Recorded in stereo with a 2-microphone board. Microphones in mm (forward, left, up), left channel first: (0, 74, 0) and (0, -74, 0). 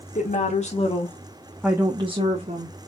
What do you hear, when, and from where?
0.1 s a woman speaking: 60° left (ahead or behind), 2.5 m; by 2.8 s 60° right (ahead or behind), 2 m